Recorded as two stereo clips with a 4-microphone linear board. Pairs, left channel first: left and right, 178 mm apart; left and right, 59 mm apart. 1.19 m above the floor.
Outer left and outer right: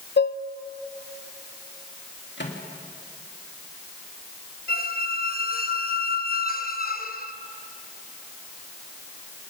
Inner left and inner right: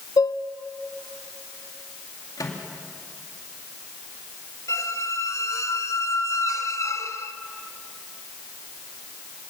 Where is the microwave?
80° left, 2 m.